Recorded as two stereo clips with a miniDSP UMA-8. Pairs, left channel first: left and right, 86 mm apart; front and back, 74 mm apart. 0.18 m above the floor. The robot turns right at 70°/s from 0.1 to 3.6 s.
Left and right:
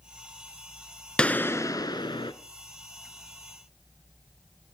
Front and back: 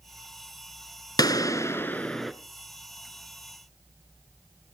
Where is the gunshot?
10° left, 0.8 m; by 2.3 s 90° left, 0.8 m.